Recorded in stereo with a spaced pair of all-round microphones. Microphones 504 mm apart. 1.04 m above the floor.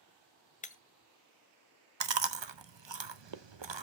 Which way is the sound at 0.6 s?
15° left (ahead or behind).